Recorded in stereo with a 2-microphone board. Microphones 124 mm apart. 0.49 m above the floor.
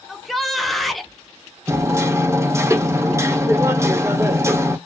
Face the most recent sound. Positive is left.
turn(degrees=-25)  # may be behind; listen again after turning